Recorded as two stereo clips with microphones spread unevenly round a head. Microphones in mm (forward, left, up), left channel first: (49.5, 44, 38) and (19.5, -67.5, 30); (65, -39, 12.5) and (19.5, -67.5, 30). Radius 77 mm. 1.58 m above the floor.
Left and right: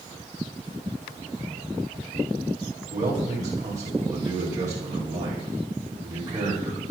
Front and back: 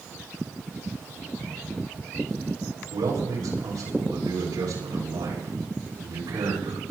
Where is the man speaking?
175° right, 9 m.